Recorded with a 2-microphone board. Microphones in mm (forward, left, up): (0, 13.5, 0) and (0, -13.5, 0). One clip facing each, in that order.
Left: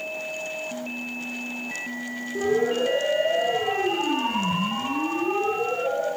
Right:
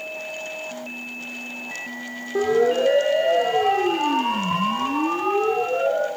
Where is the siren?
70° right (ahead or behind), 8.5 m.